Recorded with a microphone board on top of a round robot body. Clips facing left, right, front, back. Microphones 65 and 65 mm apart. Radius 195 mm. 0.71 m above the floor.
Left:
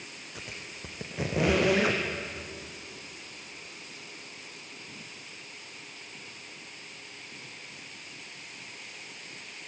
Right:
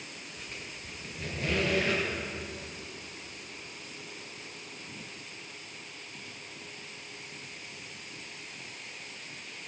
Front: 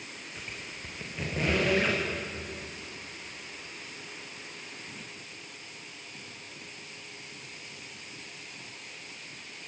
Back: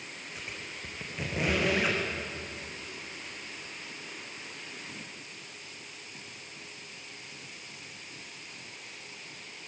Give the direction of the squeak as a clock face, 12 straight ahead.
9 o'clock.